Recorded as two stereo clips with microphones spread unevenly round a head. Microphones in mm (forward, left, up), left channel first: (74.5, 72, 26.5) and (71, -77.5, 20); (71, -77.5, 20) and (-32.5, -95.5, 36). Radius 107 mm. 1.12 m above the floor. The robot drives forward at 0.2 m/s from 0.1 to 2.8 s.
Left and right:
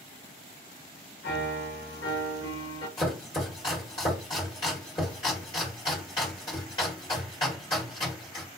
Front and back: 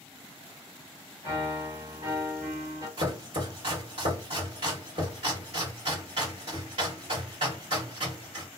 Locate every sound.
1.2 s a piano: 115° left, 1.4 m; by 2.9 s 125° left, 1.6 m
3.0 s chopping: 155° left, 1.2 m